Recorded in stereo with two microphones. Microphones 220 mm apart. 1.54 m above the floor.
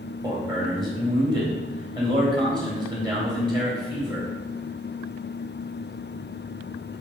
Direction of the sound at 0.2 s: 20° right (ahead or behind).